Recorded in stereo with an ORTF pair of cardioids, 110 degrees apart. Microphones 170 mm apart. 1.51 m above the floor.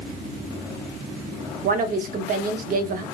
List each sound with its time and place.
1.6 s a woman speaking: 60° right, 0.5 m